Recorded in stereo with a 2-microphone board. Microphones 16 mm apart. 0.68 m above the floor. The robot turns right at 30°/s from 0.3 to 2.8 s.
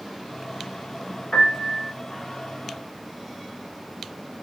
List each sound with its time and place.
1.3 s a piano: 70° left (ahead or behind), 2.0 m; by 1.9 s 75° left (ahead or behind), 2.0 m